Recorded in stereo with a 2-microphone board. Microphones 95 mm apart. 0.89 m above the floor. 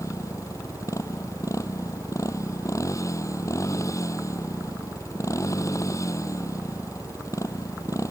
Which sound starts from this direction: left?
A motorcycle, at 0.0 s.